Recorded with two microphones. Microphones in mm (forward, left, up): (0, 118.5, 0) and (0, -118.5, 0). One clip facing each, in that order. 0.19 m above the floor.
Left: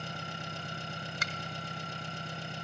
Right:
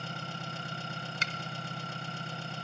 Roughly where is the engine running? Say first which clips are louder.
Right 1 dB; centre.